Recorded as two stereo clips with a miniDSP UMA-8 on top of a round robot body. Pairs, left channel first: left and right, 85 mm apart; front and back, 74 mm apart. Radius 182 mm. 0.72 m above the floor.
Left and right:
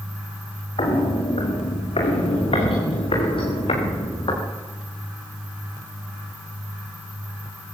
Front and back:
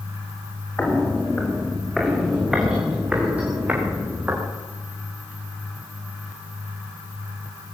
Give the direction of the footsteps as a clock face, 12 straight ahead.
10 o'clock.